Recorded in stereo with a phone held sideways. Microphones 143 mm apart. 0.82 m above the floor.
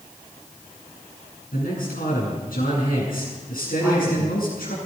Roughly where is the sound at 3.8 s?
Centre.